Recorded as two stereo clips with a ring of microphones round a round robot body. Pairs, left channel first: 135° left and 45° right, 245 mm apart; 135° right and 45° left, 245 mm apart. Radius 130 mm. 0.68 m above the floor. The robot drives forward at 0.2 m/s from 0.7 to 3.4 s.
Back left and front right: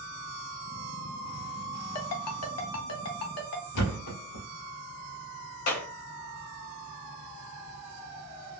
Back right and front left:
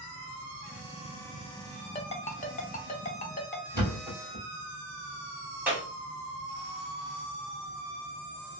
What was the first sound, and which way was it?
A ringtone, 160° left.